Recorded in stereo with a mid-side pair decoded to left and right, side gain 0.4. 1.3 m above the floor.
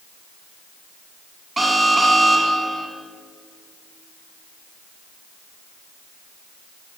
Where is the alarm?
20° right, 7.5 m.